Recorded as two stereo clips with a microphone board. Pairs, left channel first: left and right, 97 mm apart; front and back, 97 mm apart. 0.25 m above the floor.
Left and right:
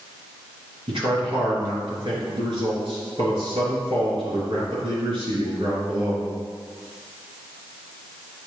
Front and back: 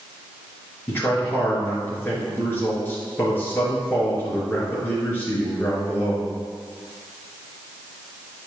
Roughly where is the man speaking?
Right.